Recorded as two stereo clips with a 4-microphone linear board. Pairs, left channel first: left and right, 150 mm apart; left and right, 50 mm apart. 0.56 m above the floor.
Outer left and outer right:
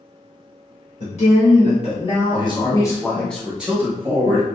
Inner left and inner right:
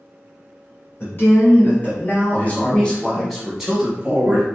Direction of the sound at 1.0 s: 50° left (ahead or behind).